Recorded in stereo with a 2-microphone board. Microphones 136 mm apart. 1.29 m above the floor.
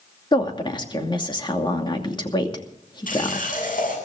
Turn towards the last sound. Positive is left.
turn(degrees=85)